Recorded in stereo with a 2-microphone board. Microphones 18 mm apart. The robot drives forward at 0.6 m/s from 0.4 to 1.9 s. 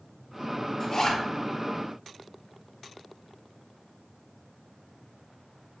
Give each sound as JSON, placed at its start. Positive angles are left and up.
{"t": 0.8, "sound": "a zipper", "side_deg": 35, "distance_m": 1.6}